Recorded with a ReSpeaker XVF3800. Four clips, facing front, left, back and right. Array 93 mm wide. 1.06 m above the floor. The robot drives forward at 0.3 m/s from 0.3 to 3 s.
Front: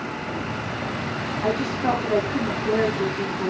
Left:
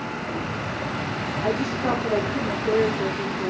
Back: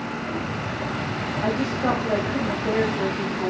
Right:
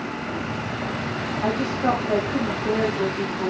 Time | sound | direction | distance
1.4 | a woman speaking | 145° right | 4.5 m